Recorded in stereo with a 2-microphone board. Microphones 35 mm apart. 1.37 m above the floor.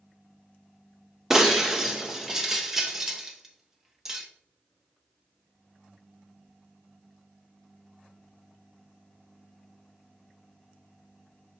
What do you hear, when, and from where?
1.3 s breaking glass: 10° right (ahead or behind), 0.8 m